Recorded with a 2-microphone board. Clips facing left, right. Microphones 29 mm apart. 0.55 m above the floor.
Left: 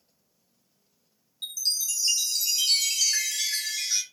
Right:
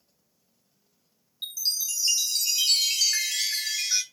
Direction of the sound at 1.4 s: 15° right (ahead or behind).